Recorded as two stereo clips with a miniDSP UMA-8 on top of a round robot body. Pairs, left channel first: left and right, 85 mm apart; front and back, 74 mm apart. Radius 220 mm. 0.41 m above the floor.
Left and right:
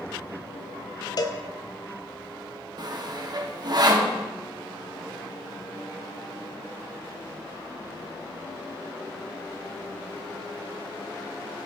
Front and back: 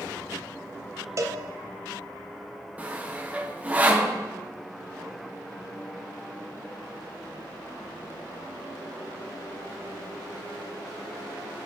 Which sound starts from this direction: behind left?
A cowbell, at 1.2 s.